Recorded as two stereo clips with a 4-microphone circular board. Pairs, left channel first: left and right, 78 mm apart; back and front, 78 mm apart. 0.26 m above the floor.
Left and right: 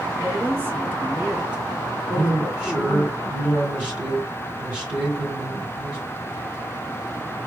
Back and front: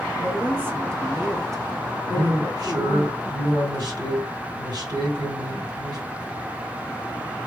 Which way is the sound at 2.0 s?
20° right.